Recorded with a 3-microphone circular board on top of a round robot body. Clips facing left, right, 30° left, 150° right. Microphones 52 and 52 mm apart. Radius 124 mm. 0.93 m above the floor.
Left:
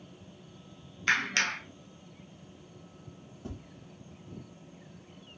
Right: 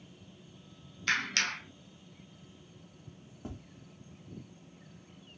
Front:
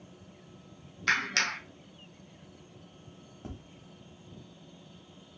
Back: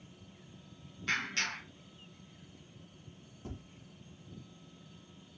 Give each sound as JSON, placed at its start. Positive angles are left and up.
{"t": 1.1, "sound": "a clap", "azimuth_deg": 20, "distance_m": 0.8}
{"t": 3.4, "sound": "tapping", "azimuth_deg": -25, "distance_m": 1.6}